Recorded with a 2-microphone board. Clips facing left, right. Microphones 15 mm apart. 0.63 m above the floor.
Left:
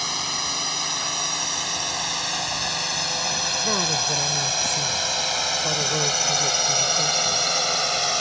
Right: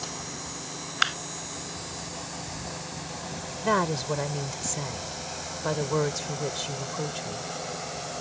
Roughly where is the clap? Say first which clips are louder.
Right 2 dB; right.